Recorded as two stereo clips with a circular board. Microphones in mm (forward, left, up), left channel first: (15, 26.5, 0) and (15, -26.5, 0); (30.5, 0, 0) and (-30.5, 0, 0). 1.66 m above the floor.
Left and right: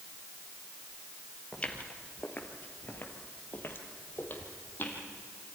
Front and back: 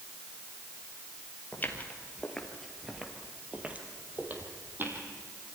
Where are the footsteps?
35° left, 2 m; by 5.0 s 135° left, 3.5 m.